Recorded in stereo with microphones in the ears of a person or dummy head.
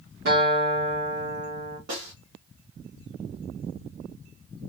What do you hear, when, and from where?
0.2 s a guitar: 50° right (ahead or behind), 1.9 m
1.9 s a snare drum: 60° right (ahead or behind), 1.6 m